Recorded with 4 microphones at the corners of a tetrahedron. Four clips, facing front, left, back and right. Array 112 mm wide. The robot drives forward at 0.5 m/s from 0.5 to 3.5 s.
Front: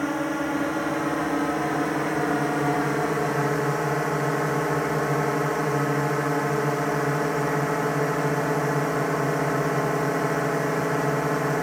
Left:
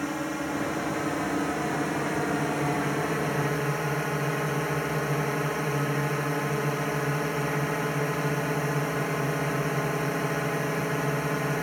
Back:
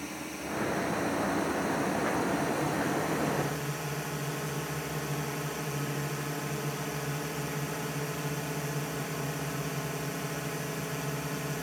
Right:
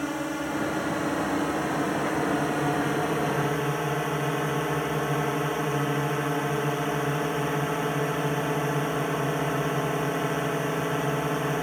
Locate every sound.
0.0 s a drone: 5° right; by 11.6 s 10° right